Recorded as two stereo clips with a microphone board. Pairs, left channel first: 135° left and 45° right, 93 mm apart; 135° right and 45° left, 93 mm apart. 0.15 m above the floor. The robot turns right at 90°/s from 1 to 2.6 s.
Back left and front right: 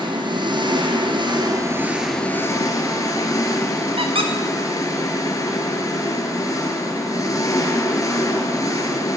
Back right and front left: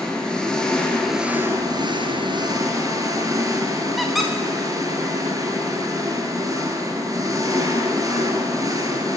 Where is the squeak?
45° right, 2 m.